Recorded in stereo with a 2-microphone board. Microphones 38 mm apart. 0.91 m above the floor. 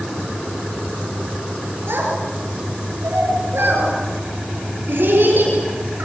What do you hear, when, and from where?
1.9 s a child speaking: 80° right, 9.5 m; by 6.0 s 65° right (ahead or behind), 8.5 m